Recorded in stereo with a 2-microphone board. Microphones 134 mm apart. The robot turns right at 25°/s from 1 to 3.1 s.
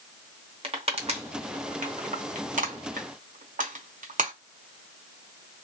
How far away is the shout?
No shout in this recording.